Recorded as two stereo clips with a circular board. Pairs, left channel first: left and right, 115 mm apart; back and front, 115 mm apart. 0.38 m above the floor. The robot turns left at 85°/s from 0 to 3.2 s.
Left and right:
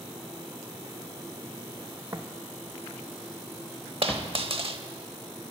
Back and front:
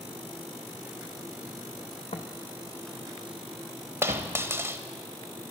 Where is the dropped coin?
65° right, 0.8 m.